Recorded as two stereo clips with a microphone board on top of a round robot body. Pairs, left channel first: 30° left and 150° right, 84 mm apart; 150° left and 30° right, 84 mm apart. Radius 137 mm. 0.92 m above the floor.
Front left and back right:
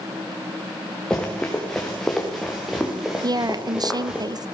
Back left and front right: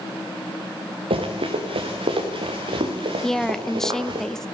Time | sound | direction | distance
1.1 | running footsteps | 50° right | 5 m
3.2 | a woman speaking | 130° right | 1.2 m